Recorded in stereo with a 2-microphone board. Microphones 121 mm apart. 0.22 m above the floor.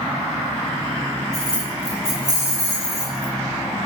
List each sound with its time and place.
1.3 s keys jangling: 5° left (ahead or behind), 0.9 m; by 3.3 s 20° left (ahead or behind), 1.9 m